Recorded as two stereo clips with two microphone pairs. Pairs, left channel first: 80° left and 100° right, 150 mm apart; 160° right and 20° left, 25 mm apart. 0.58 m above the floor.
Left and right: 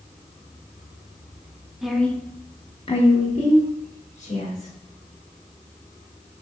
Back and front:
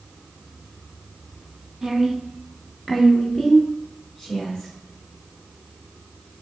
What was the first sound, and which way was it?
A woman speaking, 20° right.